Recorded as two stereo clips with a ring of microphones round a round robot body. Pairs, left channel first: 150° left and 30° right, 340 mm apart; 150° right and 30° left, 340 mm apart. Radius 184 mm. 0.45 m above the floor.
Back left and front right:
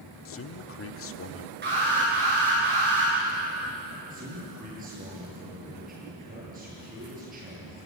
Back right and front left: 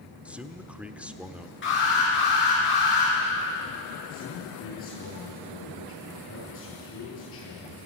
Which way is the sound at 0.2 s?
115° left.